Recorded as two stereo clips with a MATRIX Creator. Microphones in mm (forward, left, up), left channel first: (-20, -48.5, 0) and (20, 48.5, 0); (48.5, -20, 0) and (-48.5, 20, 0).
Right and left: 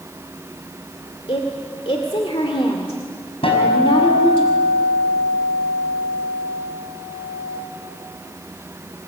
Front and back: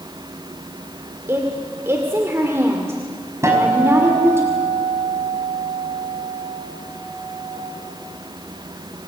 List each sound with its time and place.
1.3 s a woman speaking: 140° right, 2 m
3.4 s a guitar: 140° right, 5 m